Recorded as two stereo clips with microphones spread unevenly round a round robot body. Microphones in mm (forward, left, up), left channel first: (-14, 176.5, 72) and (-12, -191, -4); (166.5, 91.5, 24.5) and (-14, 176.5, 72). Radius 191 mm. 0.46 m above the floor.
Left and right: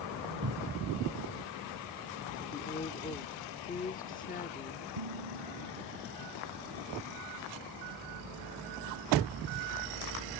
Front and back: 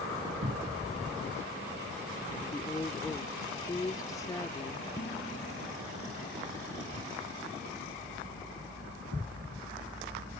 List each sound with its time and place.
0.4 s a cupboard door: 150° right
2.4 s a woman speaking: 20° left
5.0 s dishes clattering: 95° right